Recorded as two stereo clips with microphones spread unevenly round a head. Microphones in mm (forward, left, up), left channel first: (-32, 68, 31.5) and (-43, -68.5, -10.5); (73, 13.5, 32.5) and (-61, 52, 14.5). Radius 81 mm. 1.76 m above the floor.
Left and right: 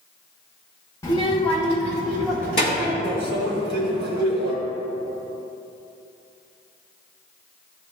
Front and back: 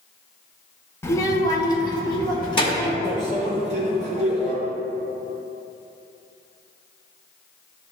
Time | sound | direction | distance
1.0 | a child speaking | 45° left | 0.8 m
3.0 | a microwave | 75° right | 1.2 m